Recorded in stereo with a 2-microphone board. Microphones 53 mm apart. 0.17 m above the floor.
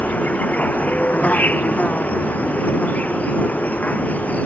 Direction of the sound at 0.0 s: 25° left (ahead or behind).